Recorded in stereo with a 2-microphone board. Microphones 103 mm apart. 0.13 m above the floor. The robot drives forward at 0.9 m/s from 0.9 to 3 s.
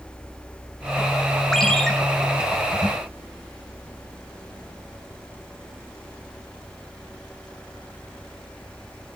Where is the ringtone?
5° left (ahead or behind), 0.7 m.